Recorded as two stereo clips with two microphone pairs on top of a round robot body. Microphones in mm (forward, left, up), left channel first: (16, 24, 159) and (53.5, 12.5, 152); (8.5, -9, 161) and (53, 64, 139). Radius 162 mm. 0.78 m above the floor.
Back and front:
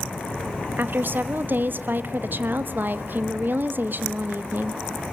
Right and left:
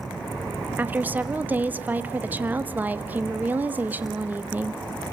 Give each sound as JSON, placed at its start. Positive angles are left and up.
{"t": 0.8, "sound": "a woman speaking", "azimuth_deg": -5, "distance_m": 1.5}